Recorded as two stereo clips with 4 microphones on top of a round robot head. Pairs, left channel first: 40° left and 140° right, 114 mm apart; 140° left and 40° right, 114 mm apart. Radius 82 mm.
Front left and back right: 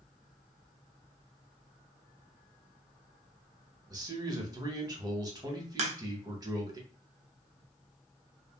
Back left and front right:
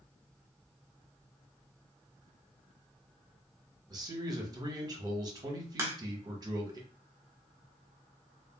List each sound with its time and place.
3.9 s a man speaking: 90° right, 1.0 m
5.8 s a crack: 110° right, 0.6 m